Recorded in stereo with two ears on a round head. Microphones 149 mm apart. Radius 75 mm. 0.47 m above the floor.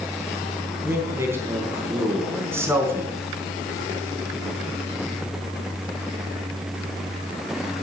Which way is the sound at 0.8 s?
15° right (ahead or behind).